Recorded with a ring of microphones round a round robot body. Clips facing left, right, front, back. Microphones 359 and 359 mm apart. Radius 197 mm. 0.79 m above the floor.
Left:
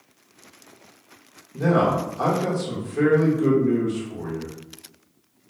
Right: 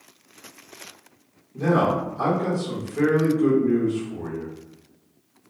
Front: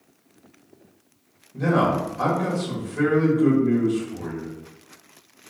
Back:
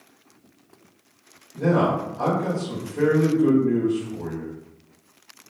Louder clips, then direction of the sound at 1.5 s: Left 1 dB, back 1 dB; 25° left.